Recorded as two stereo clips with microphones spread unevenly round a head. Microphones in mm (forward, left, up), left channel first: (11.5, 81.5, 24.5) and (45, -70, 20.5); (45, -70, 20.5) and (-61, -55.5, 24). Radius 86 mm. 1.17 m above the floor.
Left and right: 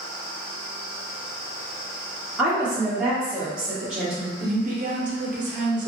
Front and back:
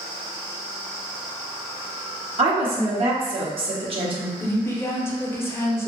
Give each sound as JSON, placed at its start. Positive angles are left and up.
{"t": 2.4, "sound": "a woman speaking", "azimuth_deg": -160, "distance_m": 0.9}
{"t": 4.4, "sound": "a woman speaking", "azimuth_deg": -70, "distance_m": 0.8}